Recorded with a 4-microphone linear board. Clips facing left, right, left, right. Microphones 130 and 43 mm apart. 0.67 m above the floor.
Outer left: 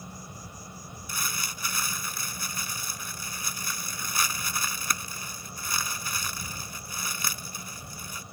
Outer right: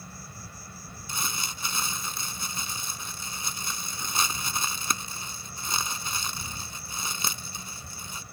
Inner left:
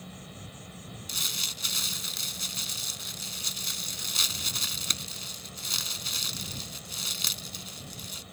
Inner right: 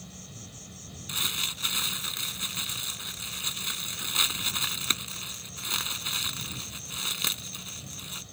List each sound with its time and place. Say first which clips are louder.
0.0 s an insect: outer left 2 dB, inner left 2 dB; 20° left (ahead or behind)
1.1 s crumpling: outer right 1 dB, inner right 2 dB; 25° right (ahead or behind)